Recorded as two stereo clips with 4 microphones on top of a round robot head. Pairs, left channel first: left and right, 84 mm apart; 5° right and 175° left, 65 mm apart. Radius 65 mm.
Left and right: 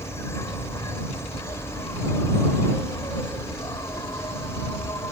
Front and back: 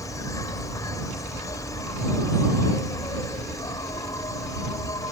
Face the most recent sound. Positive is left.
turn(degrees=25)